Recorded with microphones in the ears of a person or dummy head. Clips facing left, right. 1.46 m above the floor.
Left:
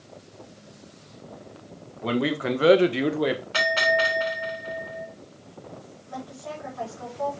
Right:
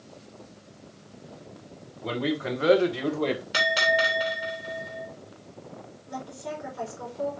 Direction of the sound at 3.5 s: 20° right (ahead or behind).